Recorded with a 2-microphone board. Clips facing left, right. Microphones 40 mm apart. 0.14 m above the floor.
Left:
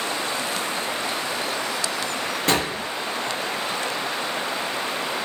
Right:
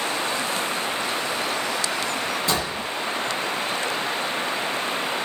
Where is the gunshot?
65° left (ahead or behind), 0.9 m.